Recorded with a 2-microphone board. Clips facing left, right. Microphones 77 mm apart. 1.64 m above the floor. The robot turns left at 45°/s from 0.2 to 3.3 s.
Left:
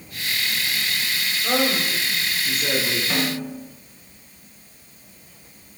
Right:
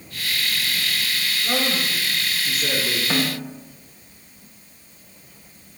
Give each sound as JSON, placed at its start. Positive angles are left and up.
{"t": 1.4, "sound": "a man speaking", "azimuth_deg": 55, "distance_m": 6.5}
{"t": 3.1, "sound": "a snare drum", "side_deg": -25, "distance_m": 2.5}